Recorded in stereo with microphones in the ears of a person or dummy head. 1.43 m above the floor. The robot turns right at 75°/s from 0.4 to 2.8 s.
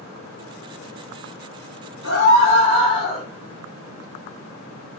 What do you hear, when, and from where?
2.0 s a scream: 80° left, 1.3 m; by 3.2 s 140° left, 1.3 m